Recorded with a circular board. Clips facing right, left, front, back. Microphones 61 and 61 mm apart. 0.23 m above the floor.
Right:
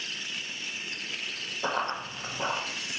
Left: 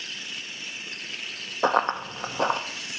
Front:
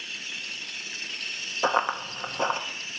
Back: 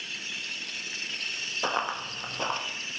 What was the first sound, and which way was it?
Running footsteps, 70° left.